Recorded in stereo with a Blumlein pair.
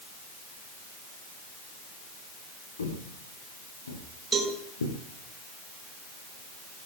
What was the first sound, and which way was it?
Footsteps, 70° left.